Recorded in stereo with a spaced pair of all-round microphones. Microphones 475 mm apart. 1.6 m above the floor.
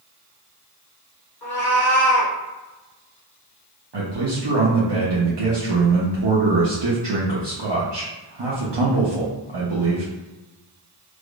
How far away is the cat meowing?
About 1.3 m.